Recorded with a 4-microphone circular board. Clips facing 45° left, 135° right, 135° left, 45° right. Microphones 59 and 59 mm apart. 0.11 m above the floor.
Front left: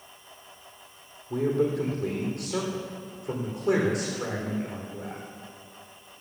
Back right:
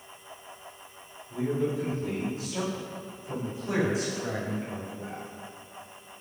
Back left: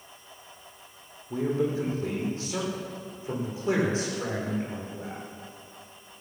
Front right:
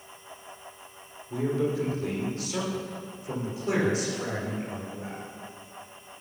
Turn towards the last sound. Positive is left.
turn(degrees=75)